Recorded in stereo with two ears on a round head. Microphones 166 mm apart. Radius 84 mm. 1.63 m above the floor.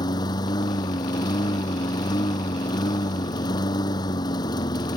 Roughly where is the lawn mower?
Left.